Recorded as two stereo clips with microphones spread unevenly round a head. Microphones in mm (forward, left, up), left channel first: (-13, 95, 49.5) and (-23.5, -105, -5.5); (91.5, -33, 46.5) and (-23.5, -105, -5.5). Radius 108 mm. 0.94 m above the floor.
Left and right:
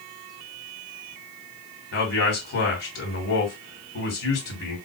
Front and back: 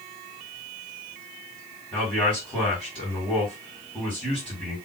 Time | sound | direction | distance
1.9 | a man speaking | 125° left | 2.0 m